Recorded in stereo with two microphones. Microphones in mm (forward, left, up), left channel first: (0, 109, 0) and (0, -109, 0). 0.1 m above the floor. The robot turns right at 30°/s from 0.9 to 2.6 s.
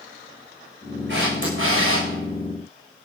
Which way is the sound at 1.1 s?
55° right (ahead or behind).